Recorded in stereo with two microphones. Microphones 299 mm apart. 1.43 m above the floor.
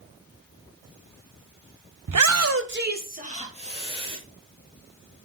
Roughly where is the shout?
Right.